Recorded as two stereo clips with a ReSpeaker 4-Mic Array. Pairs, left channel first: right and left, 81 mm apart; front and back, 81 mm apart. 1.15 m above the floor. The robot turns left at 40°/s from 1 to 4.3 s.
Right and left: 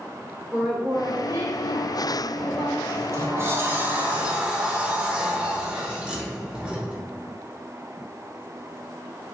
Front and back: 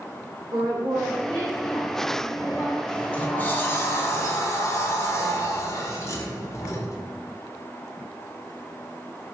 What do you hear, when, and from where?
0.5 s a woman speaking: 165° left, 0.9 m; by 2.8 s 95° left, 0.9 m
2.9 s a sliding door: 75° left, 0.7 m; by 7.0 s 20° left, 0.7 m